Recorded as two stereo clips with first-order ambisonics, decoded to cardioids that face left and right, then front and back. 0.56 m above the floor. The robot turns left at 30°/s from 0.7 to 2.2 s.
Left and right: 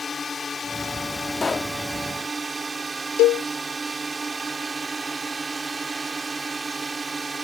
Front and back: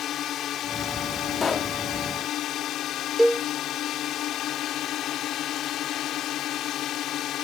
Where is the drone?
25° left; by 7.4 s 20° right.